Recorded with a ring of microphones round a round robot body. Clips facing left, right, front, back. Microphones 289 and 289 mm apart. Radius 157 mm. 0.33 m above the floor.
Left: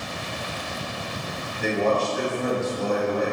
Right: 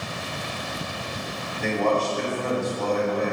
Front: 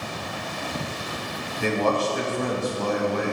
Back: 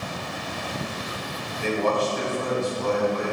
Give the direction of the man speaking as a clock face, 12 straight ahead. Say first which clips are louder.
Left 1 dB, even; 12 o'clock.